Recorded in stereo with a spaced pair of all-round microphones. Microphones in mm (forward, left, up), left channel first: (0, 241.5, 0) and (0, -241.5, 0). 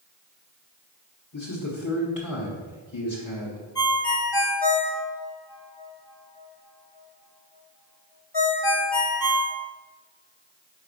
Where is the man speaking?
40° left (ahead or behind), 0.9 m.